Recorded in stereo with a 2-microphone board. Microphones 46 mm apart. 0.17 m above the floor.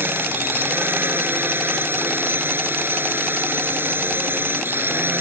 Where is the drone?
50° right (ahead or behind).